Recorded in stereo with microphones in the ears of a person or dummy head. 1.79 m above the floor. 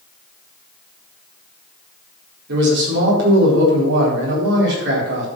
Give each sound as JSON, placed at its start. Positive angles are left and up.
{"t": 2.5, "sound": "a man speaking", "side_deg": -75, "distance_m": 4.5}